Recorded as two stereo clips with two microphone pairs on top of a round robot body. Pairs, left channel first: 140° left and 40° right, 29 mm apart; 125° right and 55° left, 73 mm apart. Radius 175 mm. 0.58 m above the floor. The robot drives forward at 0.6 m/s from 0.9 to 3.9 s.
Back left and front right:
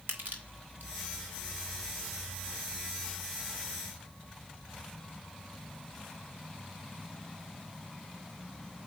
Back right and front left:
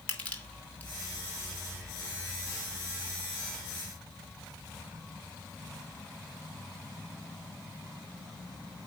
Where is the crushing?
50° right, 2.5 m.